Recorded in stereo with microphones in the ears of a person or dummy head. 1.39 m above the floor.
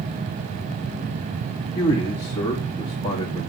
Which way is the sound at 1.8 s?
15° left (ahead or behind).